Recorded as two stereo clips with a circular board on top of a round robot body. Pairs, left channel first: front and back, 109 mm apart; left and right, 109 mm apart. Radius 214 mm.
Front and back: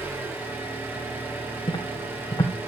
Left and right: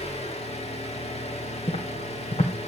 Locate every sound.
0.0 s an engine running: 110° left, 3.5 m
1.7 s footsteps: 55° left, 2 m